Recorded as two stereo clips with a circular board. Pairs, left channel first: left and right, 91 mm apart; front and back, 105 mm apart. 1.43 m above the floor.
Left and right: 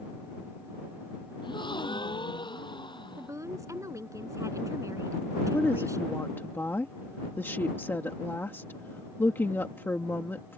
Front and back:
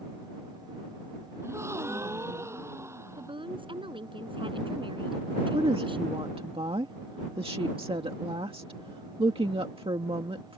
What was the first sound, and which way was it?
A gasp, 115° left.